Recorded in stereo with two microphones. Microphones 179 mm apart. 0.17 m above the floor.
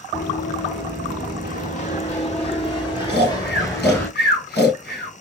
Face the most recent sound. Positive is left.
turn(degrees=70)  # may be behind; listen again after turning